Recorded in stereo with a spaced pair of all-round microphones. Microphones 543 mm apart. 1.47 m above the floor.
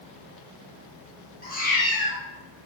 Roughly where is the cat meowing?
Centre.